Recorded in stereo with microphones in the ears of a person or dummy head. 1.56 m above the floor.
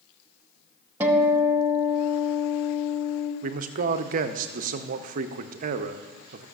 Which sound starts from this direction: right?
A man speaking, at 3.4 s.